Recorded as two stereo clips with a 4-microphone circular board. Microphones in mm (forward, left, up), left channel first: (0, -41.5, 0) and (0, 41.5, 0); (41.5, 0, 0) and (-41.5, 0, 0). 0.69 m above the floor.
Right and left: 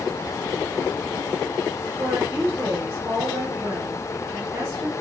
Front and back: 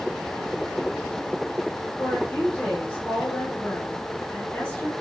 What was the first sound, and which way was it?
A woman speaking, 55° left.